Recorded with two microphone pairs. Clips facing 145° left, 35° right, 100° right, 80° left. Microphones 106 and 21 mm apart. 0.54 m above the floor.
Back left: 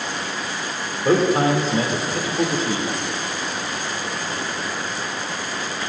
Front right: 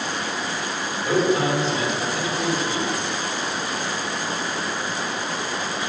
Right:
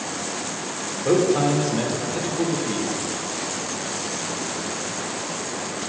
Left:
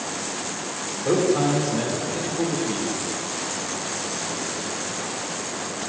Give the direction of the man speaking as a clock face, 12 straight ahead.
6 o'clock.